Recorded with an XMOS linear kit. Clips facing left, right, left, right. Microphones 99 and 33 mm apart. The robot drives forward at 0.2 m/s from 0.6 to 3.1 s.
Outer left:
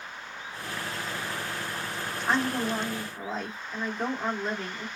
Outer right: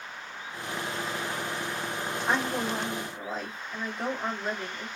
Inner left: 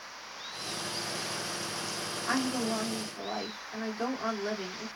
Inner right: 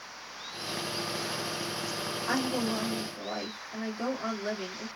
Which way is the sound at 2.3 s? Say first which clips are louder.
Outer left 2 dB, even; 5° right (ahead or behind).